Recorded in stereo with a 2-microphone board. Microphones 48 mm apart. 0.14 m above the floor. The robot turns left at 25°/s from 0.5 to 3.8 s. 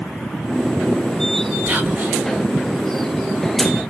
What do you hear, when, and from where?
1.7 s whispering: 35° right (ahead or behind), 1.4 m; by 2.2 s 30° right (ahead or behind), 1.4 m